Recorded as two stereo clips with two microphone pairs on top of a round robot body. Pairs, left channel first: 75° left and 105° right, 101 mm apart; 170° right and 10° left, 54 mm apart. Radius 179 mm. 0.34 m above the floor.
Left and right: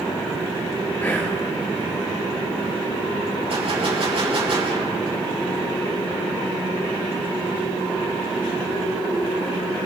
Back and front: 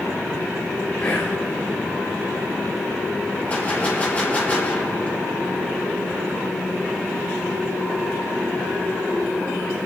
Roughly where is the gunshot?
Right.